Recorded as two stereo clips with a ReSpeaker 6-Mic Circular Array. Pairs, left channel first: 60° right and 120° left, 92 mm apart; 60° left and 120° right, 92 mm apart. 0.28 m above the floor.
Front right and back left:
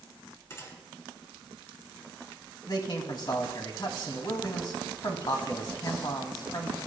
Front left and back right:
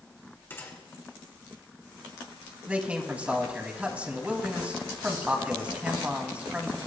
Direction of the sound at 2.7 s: 50° right.